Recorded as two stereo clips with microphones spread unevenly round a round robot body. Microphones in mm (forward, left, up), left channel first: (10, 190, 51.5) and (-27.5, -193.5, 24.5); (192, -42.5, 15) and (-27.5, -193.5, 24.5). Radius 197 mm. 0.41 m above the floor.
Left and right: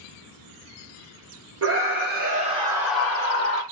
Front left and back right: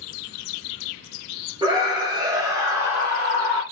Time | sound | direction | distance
1.6 | a scream | 75° right | 1.3 m